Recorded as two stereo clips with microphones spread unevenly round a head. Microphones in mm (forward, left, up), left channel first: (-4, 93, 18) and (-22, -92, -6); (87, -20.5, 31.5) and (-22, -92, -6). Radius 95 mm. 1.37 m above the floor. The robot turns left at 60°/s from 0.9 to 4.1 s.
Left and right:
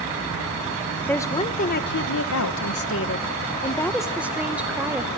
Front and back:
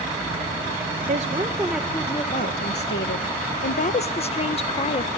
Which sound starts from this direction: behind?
A woman speaking, at 1.1 s.